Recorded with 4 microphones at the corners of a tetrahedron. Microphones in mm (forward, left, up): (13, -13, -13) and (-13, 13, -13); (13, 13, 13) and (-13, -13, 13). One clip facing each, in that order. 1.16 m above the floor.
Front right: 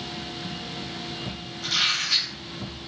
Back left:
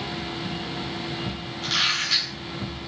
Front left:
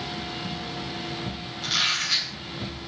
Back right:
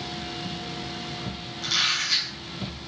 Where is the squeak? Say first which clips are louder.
Back left 1 dB, even; 110° left, 2.5 m.